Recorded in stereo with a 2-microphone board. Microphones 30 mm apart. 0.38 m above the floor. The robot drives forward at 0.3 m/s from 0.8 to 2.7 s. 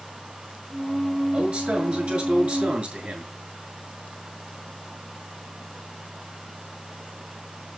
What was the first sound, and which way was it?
A man speaking, 50° right (ahead or behind).